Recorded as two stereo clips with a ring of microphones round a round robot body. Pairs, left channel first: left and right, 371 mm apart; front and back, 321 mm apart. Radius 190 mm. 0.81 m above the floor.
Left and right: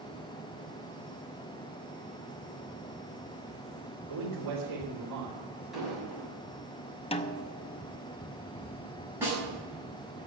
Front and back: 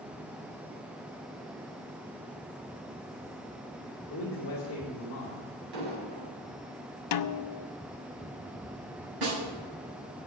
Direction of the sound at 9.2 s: 175° right.